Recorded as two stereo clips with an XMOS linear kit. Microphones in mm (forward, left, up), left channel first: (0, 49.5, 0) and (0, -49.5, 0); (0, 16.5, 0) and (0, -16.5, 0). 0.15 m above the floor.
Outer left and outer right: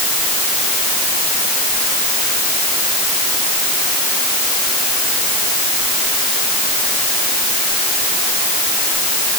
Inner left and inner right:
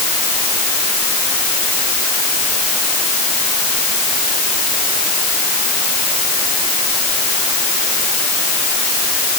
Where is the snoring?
I don't hear snoring.